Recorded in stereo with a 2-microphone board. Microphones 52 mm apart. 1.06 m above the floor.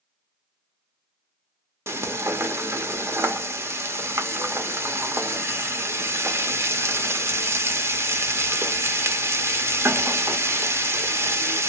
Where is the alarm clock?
No alarm clock in this recording.